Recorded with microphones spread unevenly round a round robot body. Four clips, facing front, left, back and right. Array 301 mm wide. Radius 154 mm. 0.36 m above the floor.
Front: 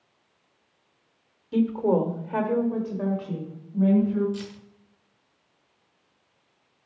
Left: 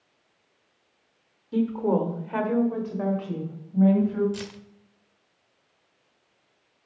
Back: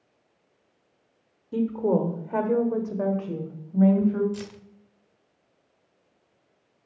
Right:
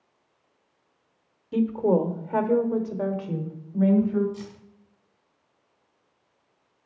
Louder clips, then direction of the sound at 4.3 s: Left 3 dB, front 1 dB; 105° left.